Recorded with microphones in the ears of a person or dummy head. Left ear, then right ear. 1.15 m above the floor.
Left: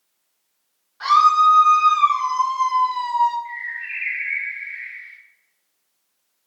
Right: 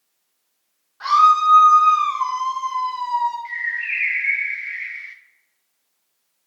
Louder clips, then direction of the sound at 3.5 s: Right 5 dB; 65° right (ahead or behind).